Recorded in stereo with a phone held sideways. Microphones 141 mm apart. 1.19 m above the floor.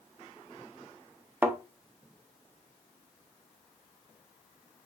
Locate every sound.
1.4 s a thud: 15° right (ahead or behind), 0.9 m